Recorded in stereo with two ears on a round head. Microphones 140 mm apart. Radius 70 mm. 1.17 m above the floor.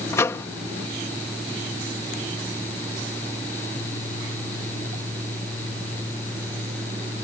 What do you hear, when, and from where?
0.1 s a microwave: 20° left (ahead or behind)